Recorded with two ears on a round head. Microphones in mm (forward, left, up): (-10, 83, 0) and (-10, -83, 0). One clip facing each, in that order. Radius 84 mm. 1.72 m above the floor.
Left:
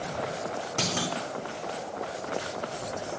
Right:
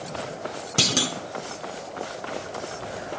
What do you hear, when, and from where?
0.8 s a clunk: 40° right (ahead or behind), 1.1 m